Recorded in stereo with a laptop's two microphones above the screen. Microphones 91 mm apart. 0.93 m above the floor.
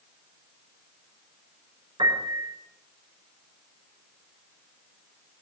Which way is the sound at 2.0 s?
70° right (ahead or behind).